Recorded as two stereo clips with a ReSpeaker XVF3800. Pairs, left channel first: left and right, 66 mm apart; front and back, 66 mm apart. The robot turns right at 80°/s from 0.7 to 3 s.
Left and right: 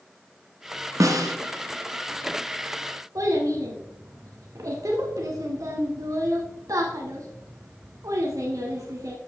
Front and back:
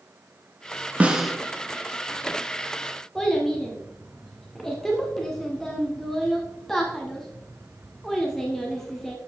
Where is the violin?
No violin in this recording.